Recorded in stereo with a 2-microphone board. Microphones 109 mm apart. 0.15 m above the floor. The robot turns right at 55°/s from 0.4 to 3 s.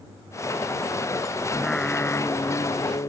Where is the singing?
5° right; by 3.1 s 80° left.